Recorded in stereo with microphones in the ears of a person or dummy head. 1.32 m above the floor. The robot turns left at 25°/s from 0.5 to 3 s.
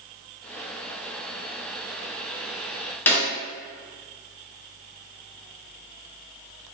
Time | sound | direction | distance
3.1 | a snare drum | 10° left (ahead or behind) | 0.8 m